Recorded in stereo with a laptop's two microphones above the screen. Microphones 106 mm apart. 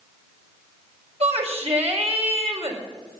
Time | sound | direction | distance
1.2 | a shout | 80° right | 4.5 m